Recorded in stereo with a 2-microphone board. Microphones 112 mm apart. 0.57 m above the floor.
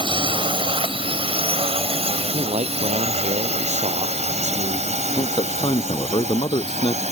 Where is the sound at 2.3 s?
75° right (ahead or behind).